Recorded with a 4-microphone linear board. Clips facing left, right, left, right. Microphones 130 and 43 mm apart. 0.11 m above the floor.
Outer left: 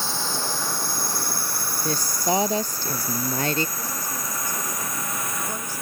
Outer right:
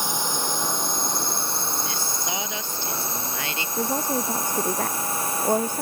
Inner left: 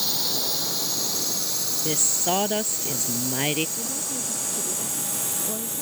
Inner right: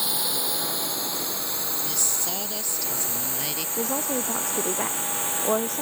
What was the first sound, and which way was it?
A drone, 15° right (ahead or behind).